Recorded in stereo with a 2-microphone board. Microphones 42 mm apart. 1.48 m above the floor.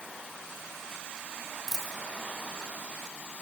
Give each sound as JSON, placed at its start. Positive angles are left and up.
{"t": 1.7, "sound": "a dropped coin", "side_deg": -10, "distance_m": 6.0}